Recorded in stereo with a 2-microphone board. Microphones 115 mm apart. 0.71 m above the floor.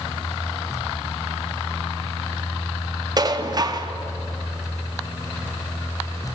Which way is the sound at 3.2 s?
35° right (ahead or behind).